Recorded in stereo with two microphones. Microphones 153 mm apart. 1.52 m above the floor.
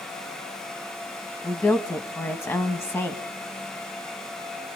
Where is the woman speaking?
15° left (ahead or behind), 1.6 m.